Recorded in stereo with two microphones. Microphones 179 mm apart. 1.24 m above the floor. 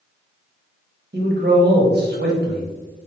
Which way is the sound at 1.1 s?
70° right (ahead or behind).